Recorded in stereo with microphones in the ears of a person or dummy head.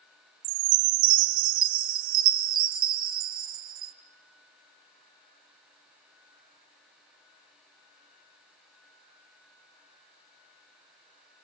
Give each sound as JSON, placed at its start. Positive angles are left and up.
{"t": 0.4, "sound": "a chime", "side_deg": -45, "distance_m": 0.5}